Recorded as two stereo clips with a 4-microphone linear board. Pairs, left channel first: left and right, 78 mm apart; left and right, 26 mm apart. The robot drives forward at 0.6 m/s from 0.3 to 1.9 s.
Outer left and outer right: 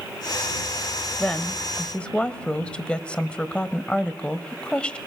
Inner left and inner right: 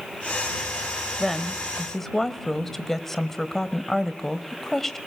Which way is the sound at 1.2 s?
15° left (ahead or behind).